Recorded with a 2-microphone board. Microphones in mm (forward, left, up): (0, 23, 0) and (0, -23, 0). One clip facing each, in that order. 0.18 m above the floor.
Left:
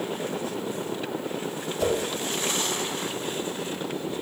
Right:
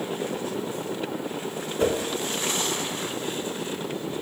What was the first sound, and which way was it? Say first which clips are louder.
A whoosh: right 2 dB; 35° right (ahead or behind).